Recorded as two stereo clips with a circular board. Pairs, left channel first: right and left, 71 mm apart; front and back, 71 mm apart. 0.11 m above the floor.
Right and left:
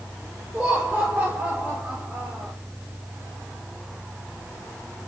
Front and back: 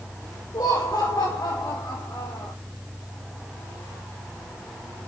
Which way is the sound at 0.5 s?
10° left.